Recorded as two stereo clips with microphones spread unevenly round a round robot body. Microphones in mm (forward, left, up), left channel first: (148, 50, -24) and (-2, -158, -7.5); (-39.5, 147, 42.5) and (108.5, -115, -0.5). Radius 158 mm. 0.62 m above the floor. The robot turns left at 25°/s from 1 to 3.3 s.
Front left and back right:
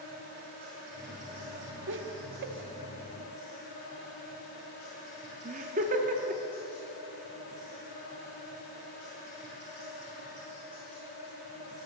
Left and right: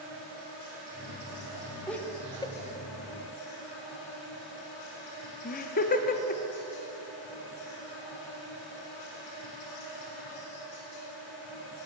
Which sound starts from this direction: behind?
An insect, at 0.0 s.